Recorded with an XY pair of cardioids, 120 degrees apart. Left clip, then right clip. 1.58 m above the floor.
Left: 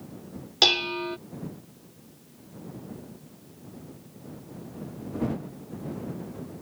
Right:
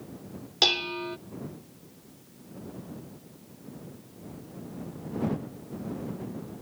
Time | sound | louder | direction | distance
0.6 | dishes clattering | left 3 dB | 15° left | ?